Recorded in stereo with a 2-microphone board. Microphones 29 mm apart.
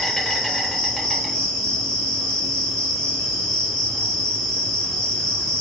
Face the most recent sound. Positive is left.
turn(degrees=20)  # may be behind; listen again after turning